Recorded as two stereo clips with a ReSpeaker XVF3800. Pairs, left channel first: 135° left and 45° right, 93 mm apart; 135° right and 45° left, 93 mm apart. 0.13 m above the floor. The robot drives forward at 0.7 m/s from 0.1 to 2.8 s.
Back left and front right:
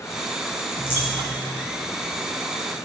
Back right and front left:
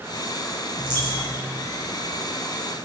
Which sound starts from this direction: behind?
A dropped coin, at 0.8 s.